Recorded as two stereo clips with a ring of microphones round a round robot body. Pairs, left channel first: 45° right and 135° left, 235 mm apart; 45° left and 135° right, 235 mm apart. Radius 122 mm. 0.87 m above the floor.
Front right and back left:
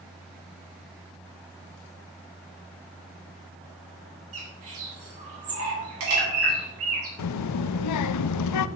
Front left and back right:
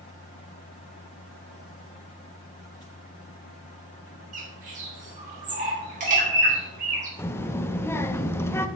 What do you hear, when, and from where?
4.3 s a bird: 165° left, 3 m
7.2 s a child speaking: 35° right, 0.5 m